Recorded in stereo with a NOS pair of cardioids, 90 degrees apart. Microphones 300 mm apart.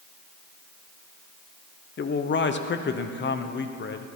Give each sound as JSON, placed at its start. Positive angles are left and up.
{"t": 2.0, "sound": "a man speaking", "azimuth_deg": 35, "distance_m": 1.0}